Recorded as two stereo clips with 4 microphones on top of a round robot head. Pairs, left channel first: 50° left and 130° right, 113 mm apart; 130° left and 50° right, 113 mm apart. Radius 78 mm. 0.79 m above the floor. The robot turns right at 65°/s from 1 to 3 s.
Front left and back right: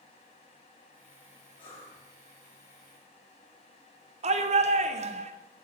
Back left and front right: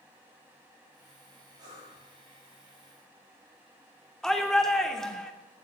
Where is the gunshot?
I don't hear a gunshot.